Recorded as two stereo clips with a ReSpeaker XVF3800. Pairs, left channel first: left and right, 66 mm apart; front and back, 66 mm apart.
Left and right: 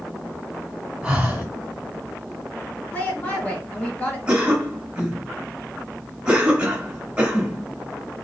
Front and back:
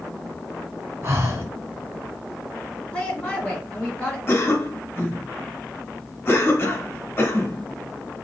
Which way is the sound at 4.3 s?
25° right.